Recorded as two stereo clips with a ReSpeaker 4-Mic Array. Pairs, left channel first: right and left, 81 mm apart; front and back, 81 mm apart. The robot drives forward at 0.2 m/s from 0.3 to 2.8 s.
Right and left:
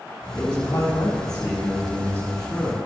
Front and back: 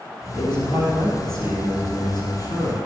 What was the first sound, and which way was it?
A man speaking, 120° right.